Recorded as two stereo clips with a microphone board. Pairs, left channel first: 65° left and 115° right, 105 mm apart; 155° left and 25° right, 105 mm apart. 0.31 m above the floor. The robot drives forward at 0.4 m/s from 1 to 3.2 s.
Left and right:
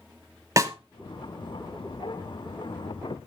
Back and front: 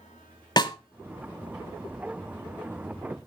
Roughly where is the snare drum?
Behind.